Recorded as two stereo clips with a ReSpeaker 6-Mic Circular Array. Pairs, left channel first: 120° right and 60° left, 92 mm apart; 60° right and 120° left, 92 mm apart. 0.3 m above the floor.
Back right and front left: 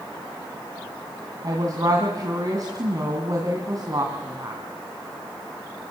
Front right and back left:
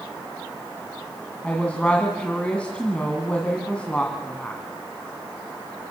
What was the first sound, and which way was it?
A woman speaking, 15° left.